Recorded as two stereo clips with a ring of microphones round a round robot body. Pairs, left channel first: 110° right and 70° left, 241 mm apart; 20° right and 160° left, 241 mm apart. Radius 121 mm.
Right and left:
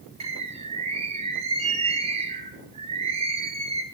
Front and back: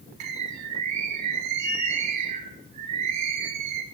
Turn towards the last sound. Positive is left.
turn(degrees=135)